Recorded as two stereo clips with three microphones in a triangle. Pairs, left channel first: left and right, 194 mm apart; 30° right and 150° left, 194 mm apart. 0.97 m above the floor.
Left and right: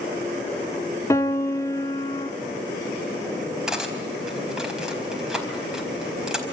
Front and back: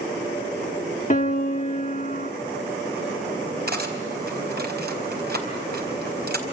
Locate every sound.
1.1 s a piano: 15° left, 1.4 m
3.7 s cutlery clinking: 175° right, 4.5 m